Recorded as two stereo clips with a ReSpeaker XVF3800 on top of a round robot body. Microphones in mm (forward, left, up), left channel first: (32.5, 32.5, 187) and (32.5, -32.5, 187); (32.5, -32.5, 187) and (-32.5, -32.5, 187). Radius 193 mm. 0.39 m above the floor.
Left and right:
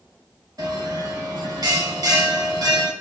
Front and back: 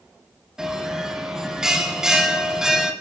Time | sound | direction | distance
0.6 | a bell | 100° right | 2.5 m